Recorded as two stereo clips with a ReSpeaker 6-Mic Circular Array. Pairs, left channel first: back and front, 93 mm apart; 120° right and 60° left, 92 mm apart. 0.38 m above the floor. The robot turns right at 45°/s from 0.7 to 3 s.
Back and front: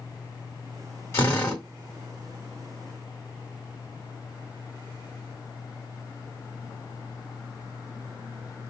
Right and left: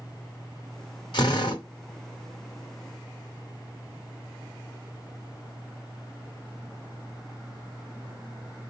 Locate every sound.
1.1 s a drill: 125° right, 1.6 m; by 1.6 s 100° right, 1.6 m